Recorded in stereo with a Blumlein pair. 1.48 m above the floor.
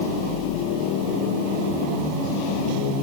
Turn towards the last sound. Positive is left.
No sound to turn to.